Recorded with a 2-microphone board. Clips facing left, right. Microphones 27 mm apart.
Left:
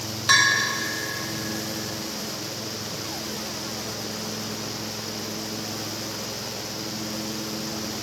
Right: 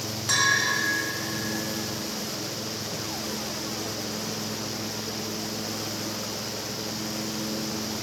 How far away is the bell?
About 1.4 m.